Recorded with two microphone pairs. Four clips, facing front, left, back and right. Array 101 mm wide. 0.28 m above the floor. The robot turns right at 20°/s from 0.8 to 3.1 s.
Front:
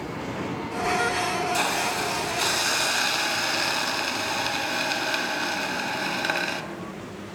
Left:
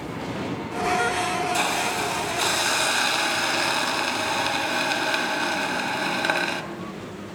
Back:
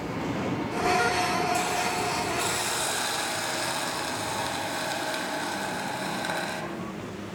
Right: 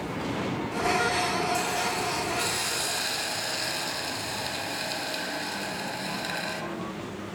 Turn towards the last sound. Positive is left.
turn(degrees=75)